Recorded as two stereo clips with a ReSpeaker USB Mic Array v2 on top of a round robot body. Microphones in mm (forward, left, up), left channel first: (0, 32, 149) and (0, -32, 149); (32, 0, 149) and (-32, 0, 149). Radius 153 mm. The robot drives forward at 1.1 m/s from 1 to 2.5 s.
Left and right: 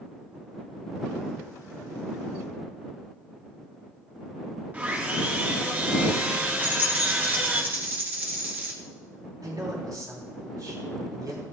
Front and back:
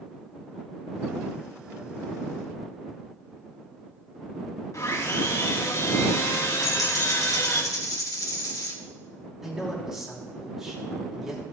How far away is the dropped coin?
About 2 m.